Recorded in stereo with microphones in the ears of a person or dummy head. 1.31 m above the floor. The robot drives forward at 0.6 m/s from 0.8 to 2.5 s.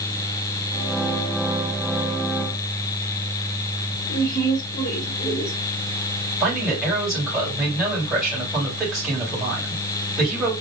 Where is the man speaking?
Centre (ahead or behind), 3 m.